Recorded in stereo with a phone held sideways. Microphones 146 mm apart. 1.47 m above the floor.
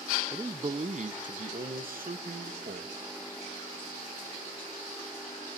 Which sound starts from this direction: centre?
A man speaking, at 0.3 s.